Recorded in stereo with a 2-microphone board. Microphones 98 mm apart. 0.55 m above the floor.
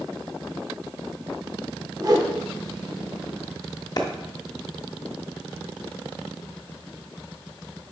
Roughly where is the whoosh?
Right.